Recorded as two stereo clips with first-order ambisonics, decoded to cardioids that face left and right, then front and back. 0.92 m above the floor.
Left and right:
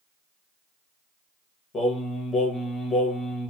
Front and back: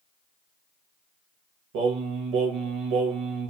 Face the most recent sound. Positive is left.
turn(degrees=155)